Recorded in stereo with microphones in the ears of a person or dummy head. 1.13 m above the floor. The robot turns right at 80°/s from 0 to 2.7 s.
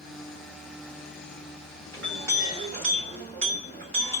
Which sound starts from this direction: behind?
A clink, at 1.9 s.